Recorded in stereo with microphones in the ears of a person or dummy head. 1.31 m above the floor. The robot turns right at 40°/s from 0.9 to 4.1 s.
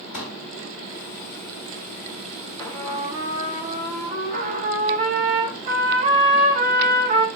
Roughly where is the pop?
Left.